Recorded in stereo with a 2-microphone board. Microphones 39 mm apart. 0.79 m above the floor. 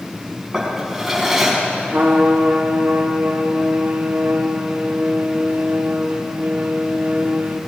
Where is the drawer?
Centre (ahead or behind), 3 m.